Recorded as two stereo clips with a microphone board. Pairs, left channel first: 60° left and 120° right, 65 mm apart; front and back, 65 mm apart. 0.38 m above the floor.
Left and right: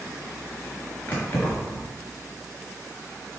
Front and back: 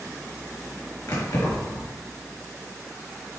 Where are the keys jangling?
5° right, 4.5 m.